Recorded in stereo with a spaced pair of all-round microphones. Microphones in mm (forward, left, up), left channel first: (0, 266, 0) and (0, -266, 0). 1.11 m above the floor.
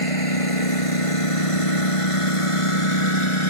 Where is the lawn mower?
80° left; by 3.5 s 60° left (ahead or behind).